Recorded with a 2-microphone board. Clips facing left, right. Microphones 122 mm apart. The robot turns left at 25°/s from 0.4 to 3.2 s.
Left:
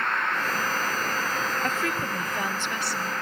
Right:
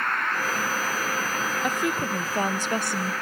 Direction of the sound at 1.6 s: 10° right.